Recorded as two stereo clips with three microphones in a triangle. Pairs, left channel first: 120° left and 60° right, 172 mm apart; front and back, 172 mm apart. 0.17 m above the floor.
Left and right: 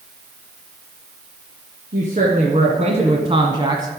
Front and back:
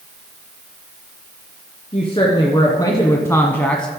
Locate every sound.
1.9 s a woman speaking: 45° right, 1.8 m; by 3.9 s 80° right, 1.2 m